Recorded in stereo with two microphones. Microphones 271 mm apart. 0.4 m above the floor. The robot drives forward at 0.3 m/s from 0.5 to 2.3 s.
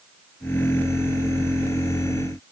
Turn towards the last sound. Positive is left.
No sound to turn to.